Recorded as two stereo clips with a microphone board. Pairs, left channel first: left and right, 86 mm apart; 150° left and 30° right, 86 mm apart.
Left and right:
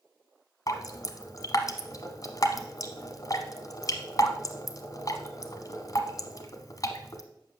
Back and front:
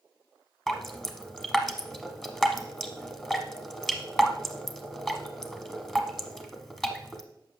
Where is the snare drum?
I don't hear a snare drum.